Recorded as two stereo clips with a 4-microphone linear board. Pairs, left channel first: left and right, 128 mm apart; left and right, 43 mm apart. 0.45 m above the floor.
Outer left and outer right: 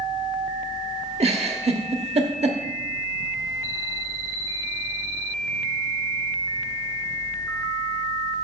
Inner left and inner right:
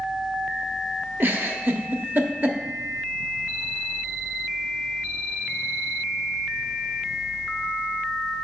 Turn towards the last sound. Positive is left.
turn(degrees=-55)  # may be behind; listen again after turning